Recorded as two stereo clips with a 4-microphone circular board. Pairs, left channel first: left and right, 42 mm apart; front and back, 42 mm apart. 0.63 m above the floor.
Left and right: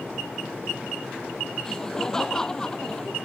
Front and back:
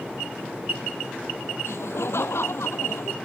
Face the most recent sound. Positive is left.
turn(degrees=15)